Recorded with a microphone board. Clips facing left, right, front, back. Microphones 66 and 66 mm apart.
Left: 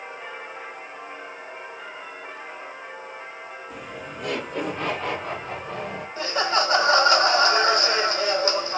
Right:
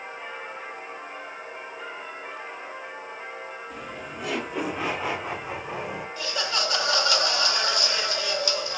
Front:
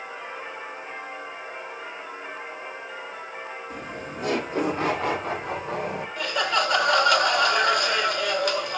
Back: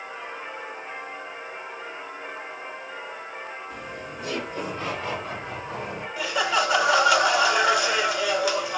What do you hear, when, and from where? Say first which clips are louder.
3.7 s laughter: left 1 dB, front 1 dB; 5° left, 1.8 m; by 6.1 s 15° right, 3.5 m
6.2 s laughter: left 7 dB, back 1 dB; 100° left, 1.1 m